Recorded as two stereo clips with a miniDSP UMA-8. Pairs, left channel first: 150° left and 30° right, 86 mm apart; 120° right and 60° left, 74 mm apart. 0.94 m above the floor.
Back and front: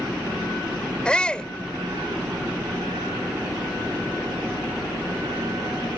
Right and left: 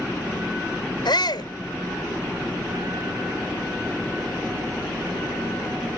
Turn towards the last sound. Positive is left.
turn(degrees=-130)